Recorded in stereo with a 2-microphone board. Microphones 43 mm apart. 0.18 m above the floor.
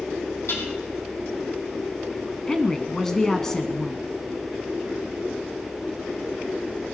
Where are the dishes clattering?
65° left (ahead or behind), 5 m.